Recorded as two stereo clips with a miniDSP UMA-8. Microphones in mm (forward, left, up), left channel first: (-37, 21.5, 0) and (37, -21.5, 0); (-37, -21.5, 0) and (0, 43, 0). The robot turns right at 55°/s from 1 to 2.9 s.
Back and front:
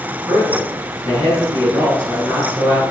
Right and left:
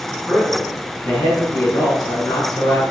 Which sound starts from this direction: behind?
A man speaking, at 0.3 s.